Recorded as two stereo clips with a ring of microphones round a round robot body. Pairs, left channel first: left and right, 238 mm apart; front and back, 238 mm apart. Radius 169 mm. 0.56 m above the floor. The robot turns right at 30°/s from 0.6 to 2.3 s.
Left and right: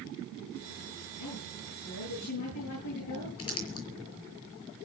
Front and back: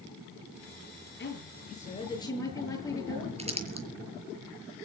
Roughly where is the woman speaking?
Ahead left.